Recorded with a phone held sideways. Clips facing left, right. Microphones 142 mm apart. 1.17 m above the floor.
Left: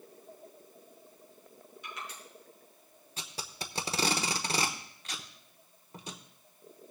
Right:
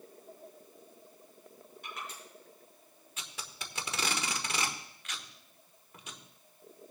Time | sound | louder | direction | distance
1.8 | crushing | even | 55° right (ahead or behind) | 4.5 m
3.2 | tape being pulled | left 4 dB | 35° left (ahead or behind) | 1.0 m